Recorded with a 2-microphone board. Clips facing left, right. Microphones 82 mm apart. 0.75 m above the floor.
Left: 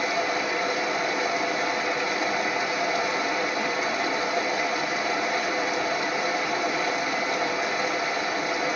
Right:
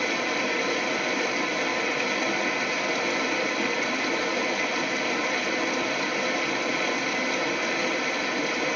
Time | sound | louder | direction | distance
0.0 | running water | left 1 dB | 25° left (ahead or behind) | 1.2 m